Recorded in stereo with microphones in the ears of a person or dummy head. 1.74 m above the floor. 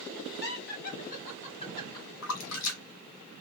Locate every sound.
0.4 s laughter: 55° left (ahead or behind), 1.9 m; by 2.1 s 20° left (ahead or behind), 1.3 m
2.2 s a splash: 70° left (ahead or behind), 0.9 m